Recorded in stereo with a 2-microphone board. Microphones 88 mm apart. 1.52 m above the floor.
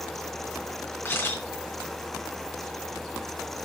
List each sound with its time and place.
1.1 s a camera shutter: 25° left (ahead or behind), 3.5 m